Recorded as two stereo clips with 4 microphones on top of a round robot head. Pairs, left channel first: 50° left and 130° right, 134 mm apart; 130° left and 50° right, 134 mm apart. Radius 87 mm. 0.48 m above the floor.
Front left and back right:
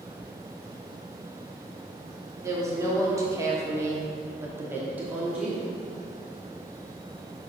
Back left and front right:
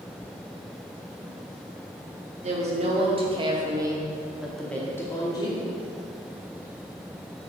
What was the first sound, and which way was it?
A woman speaking, 65° right.